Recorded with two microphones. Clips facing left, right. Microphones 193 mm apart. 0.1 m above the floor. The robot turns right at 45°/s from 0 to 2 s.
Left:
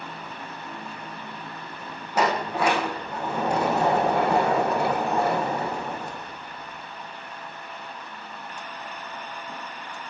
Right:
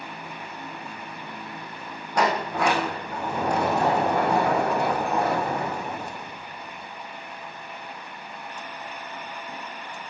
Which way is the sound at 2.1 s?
5° left (ahead or behind).